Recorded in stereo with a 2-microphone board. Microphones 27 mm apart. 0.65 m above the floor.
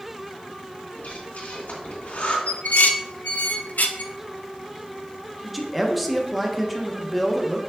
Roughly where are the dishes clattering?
Left.